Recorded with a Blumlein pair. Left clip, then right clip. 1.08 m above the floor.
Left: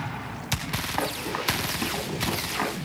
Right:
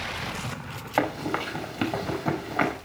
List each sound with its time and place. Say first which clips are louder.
1.0 s running footsteps: right 6 dB; 50° right, 5.5 m